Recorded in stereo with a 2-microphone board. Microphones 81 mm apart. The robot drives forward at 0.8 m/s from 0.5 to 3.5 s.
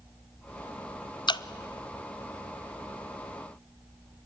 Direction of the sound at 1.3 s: 65° left (ahead or behind).